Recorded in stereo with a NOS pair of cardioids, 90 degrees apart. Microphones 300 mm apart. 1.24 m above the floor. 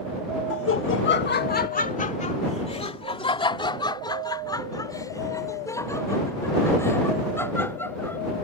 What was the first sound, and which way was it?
Laughter, 55° left.